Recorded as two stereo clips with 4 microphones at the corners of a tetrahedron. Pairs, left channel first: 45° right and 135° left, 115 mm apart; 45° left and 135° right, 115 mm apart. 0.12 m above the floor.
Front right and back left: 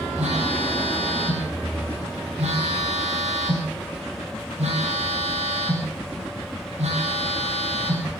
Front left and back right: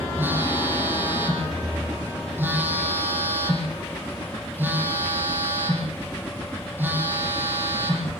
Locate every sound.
0.2 s a phone buzzing: 155° left, 6.5 m